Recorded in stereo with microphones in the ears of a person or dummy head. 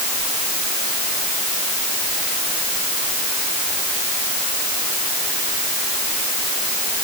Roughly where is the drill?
No drill in this recording.